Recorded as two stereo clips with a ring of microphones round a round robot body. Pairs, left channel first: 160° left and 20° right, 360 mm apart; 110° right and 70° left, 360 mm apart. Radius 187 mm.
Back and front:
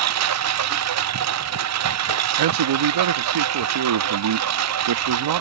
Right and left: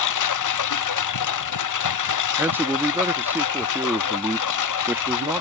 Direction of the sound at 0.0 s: 70° right.